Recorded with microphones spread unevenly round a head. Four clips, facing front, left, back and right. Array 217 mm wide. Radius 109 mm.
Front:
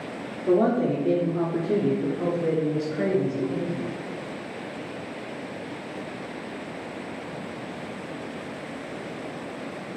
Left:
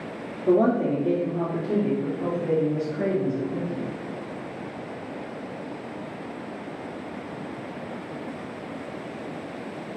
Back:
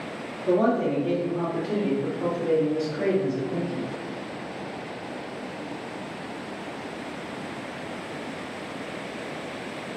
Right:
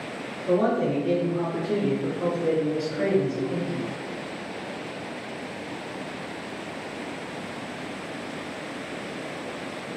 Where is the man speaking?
70° left, 0.8 m; by 3.9 s 35° right, 1.8 m.